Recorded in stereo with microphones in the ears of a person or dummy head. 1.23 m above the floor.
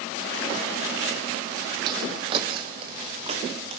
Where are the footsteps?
25° right (ahead or behind), 2.5 m; by 3.8 s 35° right (ahead or behind), 5 m.